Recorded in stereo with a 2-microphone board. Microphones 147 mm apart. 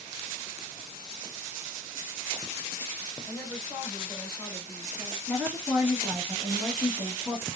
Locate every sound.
3.3 s a woman speaking: 5° right (ahead or behind), 1.5 m; by 5.2 s 25° left (ahead or behind), 1.6 m
5.3 s a woman speaking: 5° right (ahead or behind), 1.5 m